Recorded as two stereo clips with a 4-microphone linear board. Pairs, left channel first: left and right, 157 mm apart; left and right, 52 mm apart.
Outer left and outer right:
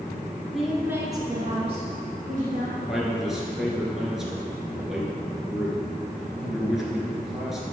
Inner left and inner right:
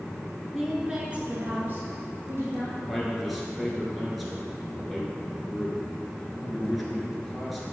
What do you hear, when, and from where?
0.5 s a woman speaking: centre (ahead or behind), 1.4 m; by 2.8 s 50° right (ahead or behind), 2.5 m
2.9 s a man speaking: centre (ahead or behind), 1.6 m